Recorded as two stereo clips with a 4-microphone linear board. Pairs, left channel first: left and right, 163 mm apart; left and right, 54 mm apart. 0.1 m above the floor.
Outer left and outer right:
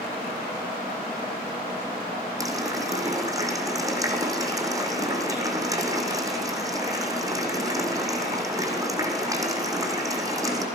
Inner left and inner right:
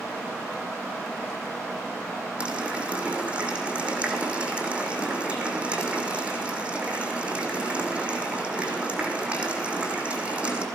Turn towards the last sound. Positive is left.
turn(degrees=-20)  # may be behind; listen again after turning